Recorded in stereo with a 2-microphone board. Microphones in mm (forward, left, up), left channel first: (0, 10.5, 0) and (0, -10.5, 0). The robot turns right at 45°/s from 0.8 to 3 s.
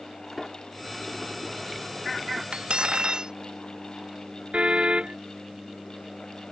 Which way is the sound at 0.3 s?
170° left.